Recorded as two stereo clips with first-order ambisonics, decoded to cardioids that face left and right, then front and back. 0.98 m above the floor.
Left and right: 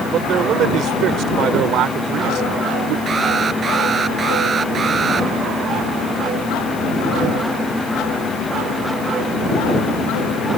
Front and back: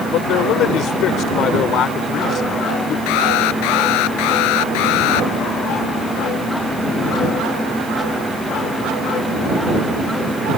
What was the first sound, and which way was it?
A man speaking, 35° right.